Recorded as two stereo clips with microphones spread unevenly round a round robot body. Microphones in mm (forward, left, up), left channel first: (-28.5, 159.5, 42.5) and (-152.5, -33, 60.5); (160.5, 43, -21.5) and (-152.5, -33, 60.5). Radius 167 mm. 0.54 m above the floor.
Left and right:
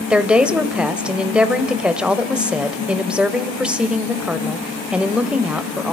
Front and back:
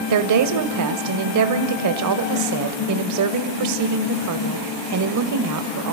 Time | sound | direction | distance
0.1 | a woman speaking | 150° left | 2.5 m